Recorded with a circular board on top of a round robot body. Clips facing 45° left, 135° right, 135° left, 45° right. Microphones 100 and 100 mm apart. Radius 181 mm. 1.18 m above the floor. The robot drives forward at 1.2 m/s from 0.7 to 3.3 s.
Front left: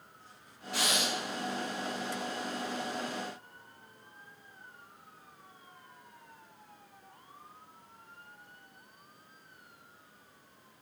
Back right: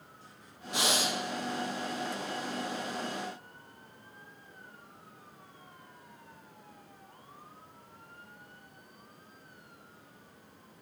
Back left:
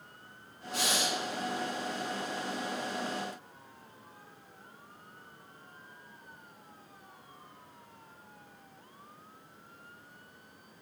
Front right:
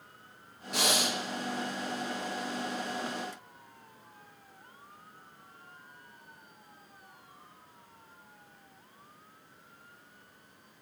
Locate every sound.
0.7 s breathing: 65° right, 1.2 m; by 1.2 s 90° right, 1.1 m